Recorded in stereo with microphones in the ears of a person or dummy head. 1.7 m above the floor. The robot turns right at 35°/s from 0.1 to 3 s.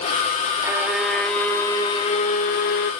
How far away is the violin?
About 0.8 m.